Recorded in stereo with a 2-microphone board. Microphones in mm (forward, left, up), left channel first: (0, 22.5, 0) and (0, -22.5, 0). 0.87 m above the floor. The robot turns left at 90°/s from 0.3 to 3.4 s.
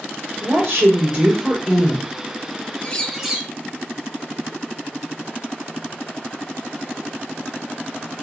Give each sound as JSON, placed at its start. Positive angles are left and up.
{"t": 0.4, "sound": "a woman speaking", "azimuth_deg": -75, "distance_m": 2.0}
{"t": 2.8, "sound": "a bird", "azimuth_deg": 30, "distance_m": 0.6}